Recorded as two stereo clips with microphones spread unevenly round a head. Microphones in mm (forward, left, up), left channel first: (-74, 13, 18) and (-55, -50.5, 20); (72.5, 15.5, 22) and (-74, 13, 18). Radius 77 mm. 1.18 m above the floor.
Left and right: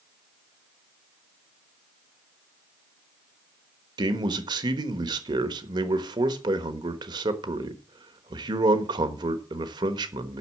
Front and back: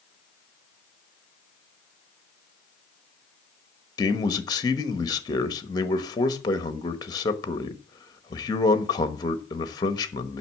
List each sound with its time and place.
4.0 s a man speaking: 65° right, 1.2 m